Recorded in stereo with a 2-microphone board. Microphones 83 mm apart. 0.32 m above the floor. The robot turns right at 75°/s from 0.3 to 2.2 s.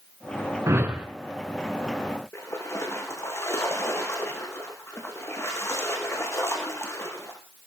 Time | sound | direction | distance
0.7 | a whoosh | 40° right | 2.5 m
2.3 | a splash | 35° left (ahead or behind) | 5 m